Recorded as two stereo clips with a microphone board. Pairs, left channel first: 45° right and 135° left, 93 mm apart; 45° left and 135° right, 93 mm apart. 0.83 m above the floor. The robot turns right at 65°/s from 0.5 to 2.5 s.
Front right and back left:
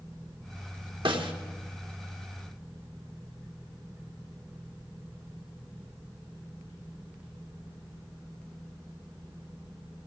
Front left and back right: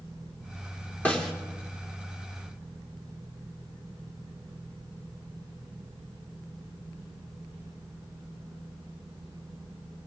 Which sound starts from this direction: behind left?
A snare drum, at 1.1 s.